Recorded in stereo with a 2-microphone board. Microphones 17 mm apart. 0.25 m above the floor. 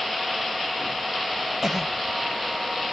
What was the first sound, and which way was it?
A cough, 25° right (ahead or behind).